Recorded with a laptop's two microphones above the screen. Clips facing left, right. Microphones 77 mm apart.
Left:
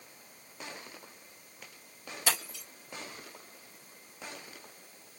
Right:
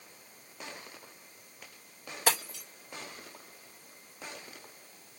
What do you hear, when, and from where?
2.3 s breaking glass: 60° right (ahead or behind), 2.5 m